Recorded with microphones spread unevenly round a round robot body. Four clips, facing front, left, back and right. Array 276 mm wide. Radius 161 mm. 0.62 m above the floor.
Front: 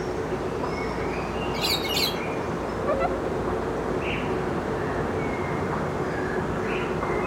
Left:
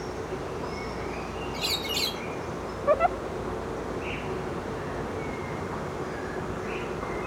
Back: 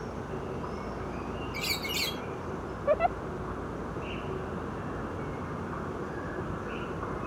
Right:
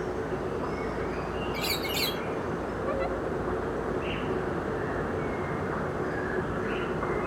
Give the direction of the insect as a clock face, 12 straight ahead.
12 o'clock.